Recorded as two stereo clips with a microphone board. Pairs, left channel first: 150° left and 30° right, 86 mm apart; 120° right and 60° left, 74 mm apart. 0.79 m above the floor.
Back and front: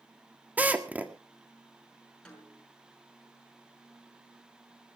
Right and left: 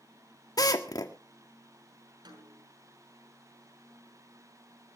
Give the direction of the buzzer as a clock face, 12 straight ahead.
I don't hear a buzzer.